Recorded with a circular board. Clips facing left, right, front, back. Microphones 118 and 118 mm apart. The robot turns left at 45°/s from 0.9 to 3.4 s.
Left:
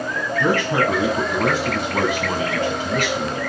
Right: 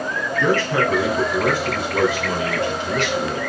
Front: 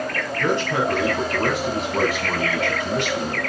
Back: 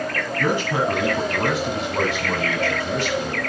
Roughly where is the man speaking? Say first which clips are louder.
Even, even; behind left.